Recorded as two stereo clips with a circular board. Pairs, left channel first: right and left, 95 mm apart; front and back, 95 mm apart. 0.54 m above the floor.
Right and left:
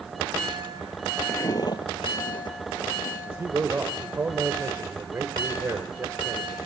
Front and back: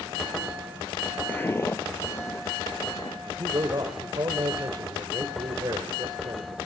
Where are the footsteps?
50° right, 0.5 m; by 3.2 s 60° right, 3 m.